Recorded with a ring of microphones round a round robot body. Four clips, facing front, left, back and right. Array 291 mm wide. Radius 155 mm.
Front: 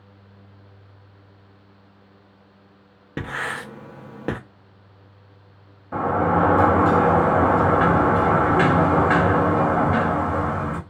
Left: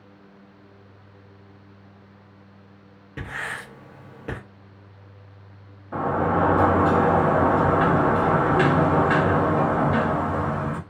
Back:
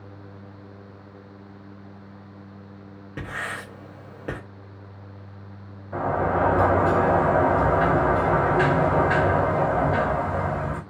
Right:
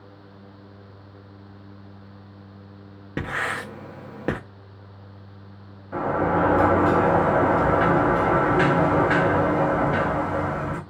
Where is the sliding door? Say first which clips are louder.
Even, front 3 dB; 20° left, 1.3 m.